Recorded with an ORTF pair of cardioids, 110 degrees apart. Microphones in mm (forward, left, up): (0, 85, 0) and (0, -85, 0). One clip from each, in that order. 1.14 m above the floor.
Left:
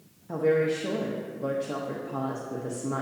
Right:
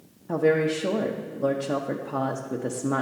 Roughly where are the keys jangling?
I don't hear keys jangling.